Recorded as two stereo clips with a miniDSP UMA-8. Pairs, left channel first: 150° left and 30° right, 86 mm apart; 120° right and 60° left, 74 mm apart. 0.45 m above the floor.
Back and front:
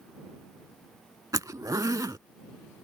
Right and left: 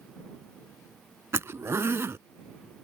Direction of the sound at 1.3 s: 10° left.